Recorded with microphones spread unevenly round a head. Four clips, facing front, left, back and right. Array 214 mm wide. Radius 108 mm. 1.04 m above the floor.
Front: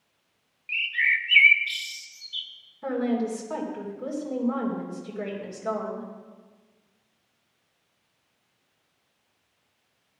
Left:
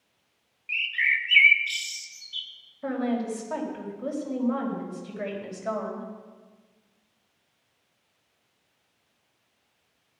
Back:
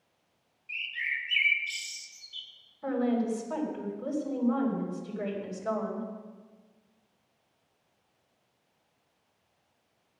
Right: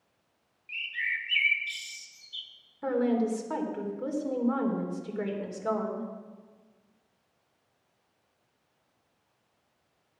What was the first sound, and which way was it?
A bird, 40° left.